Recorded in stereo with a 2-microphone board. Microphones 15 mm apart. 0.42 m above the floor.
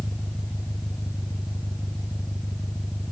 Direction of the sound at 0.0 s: 40° right (ahead or behind).